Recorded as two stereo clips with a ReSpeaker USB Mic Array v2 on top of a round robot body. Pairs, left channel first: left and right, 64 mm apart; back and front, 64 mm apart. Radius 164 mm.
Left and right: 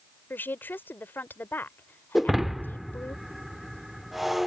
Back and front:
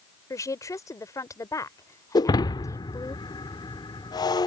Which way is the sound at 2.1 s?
Straight behind.